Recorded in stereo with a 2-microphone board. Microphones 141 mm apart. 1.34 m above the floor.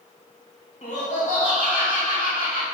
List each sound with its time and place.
0.8 s laughter: 55° left (ahead or behind), 1.7 m; by 2.6 s 70° left (ahead or behind), 2.5 m